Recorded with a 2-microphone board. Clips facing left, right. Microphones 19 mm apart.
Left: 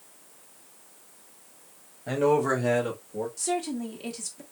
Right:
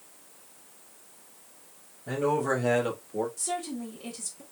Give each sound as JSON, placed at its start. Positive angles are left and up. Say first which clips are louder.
{"t": 2.1, "sound": "a man speaking", "louder": "left 4 dB", "side_deg": 50, "distance_m": 1.1}
{"t": 3.4, "sound": "a woman speaking", "louder": "left 4 dB", "side_deg": 35, "distance_m": 1.3}